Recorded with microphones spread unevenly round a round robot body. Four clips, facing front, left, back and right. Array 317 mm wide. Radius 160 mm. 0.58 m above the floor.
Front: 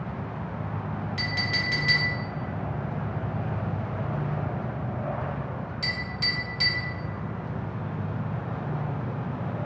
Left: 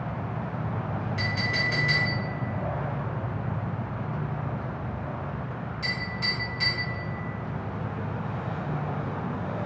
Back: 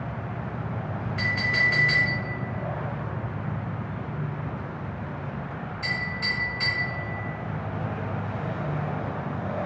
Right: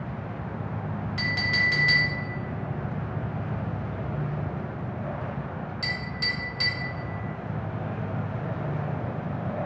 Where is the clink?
30° right, 1.2 m.